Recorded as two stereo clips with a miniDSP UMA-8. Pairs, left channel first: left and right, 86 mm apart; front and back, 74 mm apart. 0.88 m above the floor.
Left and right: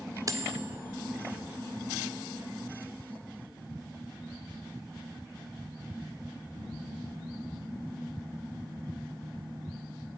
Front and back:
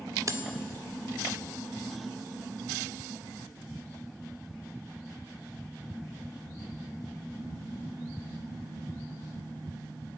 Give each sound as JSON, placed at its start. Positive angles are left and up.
{"t": 0.3, "sound": "cutlery clinking", "azimuth_deg": -135, "distance_m": 1.7}